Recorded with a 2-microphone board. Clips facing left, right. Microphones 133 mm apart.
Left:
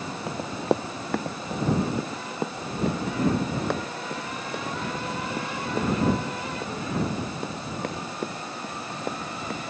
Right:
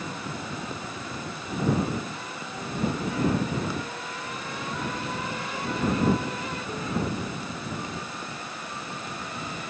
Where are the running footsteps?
70° left (ahead or behind); by 9.6 s 65° left (ahead or behind).